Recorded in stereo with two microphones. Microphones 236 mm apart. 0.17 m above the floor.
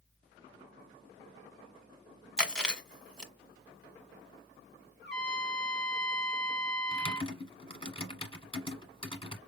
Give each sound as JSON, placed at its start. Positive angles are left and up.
{"t": 2.4, "sound": "chewing", "side_deg": 5, "distance_m": 1.3}
{"t": 5.0, "sound": "a trumpet", "side_deg": 50, "distance_m": 1.9}
{"t": 6.9, "sound": "typing on a keyboard", "side_deg": 25, "distance_m": 1.2}